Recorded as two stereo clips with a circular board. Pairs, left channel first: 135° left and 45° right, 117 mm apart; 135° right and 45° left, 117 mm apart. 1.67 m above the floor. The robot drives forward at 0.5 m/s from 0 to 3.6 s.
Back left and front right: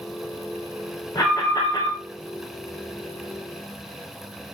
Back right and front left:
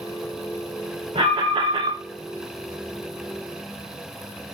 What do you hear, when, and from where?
1.1 s an alarm: 70° left, 3.5 m; by 2.0 s 80° left, 3 m